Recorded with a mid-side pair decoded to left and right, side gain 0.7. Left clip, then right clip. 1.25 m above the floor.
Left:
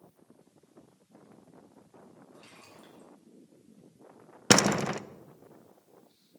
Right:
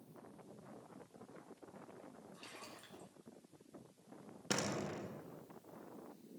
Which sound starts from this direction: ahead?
A splash, at 2.3 s.